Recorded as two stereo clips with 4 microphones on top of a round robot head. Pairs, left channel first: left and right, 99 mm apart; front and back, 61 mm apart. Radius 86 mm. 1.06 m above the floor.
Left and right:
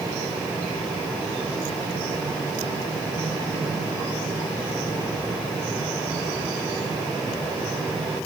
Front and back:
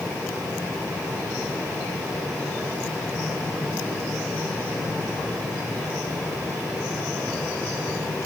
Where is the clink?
I don't hear a clink.